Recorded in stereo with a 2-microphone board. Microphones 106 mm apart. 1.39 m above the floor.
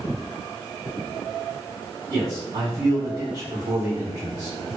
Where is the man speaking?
80° right, 1.2 m.